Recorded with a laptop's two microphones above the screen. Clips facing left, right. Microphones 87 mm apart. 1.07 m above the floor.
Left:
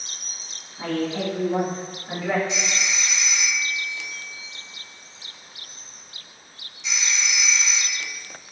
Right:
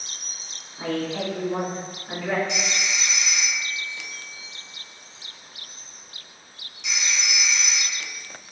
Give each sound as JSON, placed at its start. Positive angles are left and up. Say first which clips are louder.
{"t": 0.8, "sound": "a woman speaking", "louder": "left 1 dB", "side_deg": -10, "distance_m": 0.6}
{"t": 2.5, "sound": "a phone ringing", "louder": "even", "side_deg": -60, "distance_m": 1.1}